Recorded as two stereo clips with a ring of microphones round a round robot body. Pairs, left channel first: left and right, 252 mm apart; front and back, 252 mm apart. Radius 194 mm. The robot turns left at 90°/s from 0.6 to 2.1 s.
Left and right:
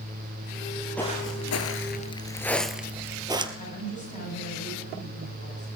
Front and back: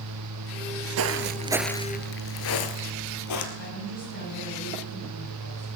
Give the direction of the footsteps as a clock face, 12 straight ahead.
6 o'clock.